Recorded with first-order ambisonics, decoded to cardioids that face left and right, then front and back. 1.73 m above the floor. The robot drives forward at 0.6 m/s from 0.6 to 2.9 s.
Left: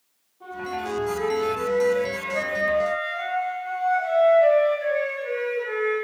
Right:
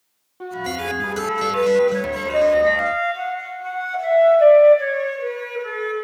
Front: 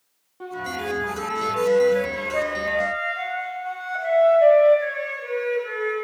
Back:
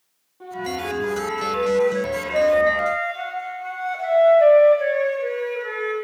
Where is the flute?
65° right, 1.4 m; by 5.9 s 125° right, 1.5 m.